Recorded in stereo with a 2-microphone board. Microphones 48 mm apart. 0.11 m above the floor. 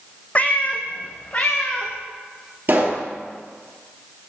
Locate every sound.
0.3 s a cat meowing: 30° left (ahead or behind), 0.7 m
2.7 s a pop: 40° right (ahead or behind), 2.0 m